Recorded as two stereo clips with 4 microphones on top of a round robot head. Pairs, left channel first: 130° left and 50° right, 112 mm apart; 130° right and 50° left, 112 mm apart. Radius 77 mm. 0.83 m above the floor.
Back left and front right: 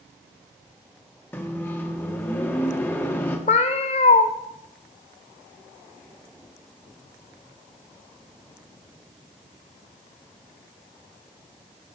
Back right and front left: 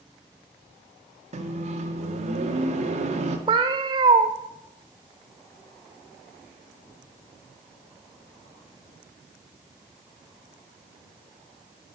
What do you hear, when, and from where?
1.3 s a microwave: 60° left, 1.8 m
3.5 s a cat meowing: 100° left, 0.9 m